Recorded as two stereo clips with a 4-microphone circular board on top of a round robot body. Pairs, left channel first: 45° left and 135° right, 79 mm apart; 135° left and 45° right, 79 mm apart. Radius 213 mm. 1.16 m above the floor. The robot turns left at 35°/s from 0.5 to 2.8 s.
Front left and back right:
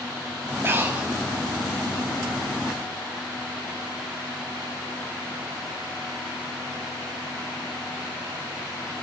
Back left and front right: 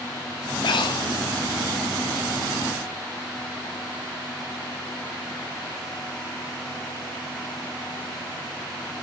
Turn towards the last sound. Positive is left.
turn(degrees=85)